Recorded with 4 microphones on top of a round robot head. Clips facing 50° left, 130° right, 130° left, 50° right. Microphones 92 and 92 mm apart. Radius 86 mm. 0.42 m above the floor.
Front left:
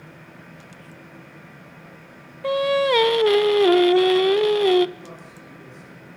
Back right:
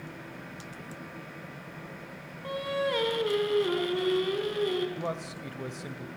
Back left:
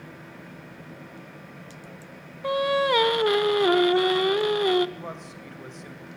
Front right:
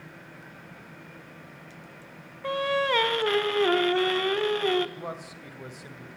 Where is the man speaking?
130° right, 2.5 m.